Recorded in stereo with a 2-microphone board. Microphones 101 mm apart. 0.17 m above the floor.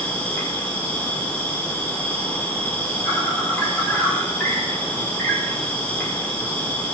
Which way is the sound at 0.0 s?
20° left (ahead or behind).